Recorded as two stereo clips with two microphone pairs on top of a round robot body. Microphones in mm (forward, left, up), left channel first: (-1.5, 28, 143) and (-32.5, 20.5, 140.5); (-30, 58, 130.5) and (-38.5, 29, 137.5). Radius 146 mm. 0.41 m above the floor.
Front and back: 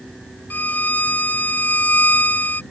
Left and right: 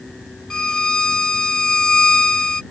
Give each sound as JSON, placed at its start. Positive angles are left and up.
{"t": 0.5, "sound": "a violin", "azimuth_deg": 15}